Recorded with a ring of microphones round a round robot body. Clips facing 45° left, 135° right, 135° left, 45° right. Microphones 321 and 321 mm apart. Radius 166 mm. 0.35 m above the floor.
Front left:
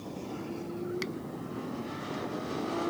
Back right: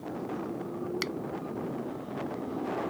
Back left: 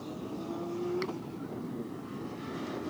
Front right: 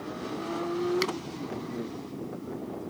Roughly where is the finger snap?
Right.